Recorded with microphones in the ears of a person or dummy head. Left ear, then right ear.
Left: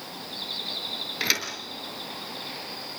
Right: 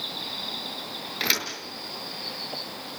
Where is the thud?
5° left (ahead or behind), 4.5 m.